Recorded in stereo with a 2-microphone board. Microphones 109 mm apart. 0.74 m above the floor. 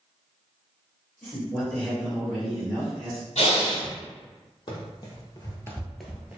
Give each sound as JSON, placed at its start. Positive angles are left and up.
{"t": 1.2, "sound": "a man speaking", "side_deg": -5, "distance_m": 1.9}
{"t": 3.4, "sound": "breathing", "side_deg": 70, "distance_m": 1.2}
{"t": 4.7, "sound": "running footsteps", "side_deg": 40, "distance_m": 1.4}